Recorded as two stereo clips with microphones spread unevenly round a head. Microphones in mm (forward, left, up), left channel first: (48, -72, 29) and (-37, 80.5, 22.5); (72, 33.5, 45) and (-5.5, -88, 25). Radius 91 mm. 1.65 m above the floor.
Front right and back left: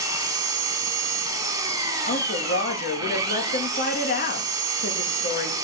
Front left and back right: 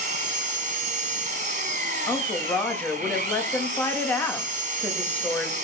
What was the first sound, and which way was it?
An engine running, 170° right.